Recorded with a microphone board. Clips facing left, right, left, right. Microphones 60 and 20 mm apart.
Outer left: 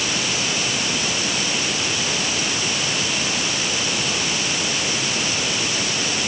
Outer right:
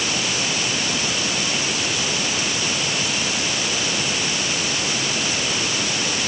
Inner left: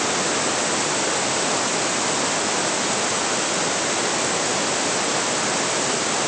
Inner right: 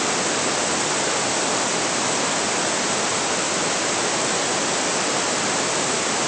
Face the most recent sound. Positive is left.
No sound to turn to.